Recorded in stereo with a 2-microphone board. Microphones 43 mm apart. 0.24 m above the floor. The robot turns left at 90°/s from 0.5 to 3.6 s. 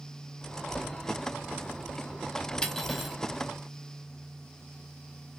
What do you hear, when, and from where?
2.6 s cutlery clinking: 20° left (ahead or behind), 0.8 m; by 3.2 s 10° right (ahead or behind), 0.8 m